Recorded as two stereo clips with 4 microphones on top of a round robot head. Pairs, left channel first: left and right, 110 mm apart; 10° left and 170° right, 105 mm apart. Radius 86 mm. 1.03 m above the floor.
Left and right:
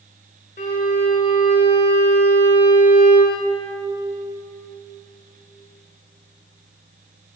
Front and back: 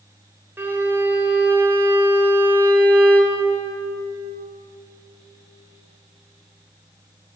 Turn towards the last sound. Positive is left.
turn(degrees=120)